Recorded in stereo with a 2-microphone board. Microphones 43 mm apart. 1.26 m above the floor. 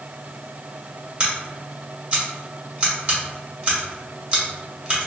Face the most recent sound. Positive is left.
turn(degrees=-25)  # may be behind; listen again after turning